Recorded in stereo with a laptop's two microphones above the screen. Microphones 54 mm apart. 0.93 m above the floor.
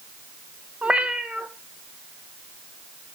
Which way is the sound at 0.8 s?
20° right (ahead or behind).